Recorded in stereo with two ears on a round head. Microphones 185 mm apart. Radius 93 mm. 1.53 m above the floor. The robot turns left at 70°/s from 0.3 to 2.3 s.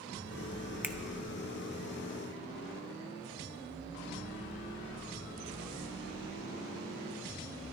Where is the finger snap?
10° right (ahead or behind), 0.6 m; by 0.9 s centre (ahead or behind), 0.6 m.